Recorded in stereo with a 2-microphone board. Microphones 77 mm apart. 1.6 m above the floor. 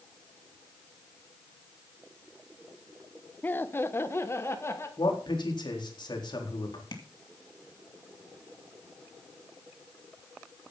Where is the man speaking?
80° left, 4 m.